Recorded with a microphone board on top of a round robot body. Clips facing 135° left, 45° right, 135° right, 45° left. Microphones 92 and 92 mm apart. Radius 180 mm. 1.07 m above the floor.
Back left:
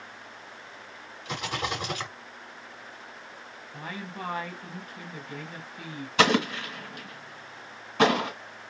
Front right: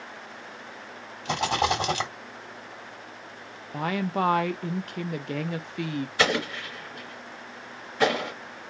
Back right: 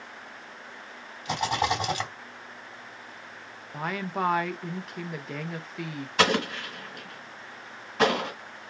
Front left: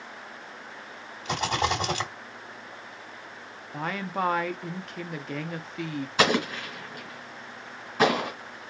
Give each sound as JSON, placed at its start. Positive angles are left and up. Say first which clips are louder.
{"t": 1.2, "sound": "a rattle", "louder": "front right 7 dB, even", "azimuth_deg": -60, "distance_m": 2.0}
{"t": 3.7, "sound": "a woman speaking", "louder": "front right 12 dB, even", "azimuth_deg": -50, "distance_m": 0.7}
{"t": 6.2, "sound": "an explosion", "louder": "back left 4 dB, even", "azimuth_deg": 130, "distance_m": 1.9}